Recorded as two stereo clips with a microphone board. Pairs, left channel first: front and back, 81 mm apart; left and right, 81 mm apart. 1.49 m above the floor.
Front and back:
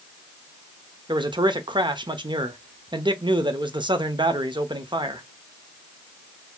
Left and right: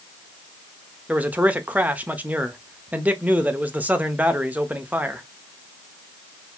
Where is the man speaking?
160° right, 0.7 m.